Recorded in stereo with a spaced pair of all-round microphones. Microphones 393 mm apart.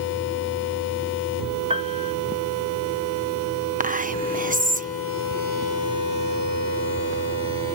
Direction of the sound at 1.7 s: 15° right (ahead or behind).